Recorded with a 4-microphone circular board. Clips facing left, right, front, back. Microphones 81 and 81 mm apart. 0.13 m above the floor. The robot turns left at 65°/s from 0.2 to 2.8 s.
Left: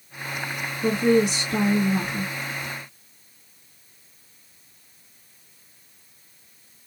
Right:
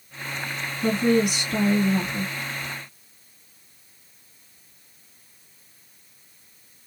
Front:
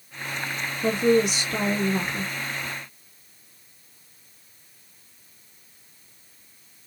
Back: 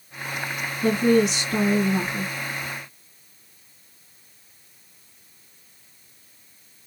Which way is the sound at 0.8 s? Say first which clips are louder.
Left 1 dB, back 1 dB; 170° left.